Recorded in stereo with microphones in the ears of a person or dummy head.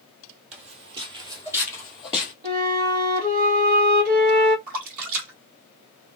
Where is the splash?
45° right (ahead or behind), 1.9 m.